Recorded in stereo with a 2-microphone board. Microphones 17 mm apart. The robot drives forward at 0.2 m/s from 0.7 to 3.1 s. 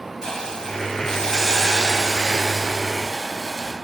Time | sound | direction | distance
0.2 | a hiss | 45° left (ahead or behind) | 0.5 m